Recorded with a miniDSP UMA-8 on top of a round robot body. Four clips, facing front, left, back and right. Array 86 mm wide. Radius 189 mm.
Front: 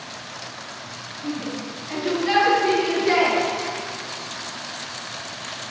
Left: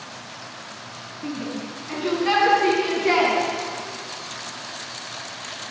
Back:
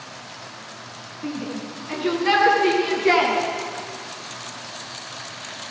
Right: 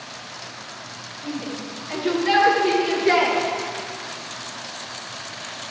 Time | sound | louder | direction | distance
1.2 | a shout | left 1 dB, even | 135° left | 7 m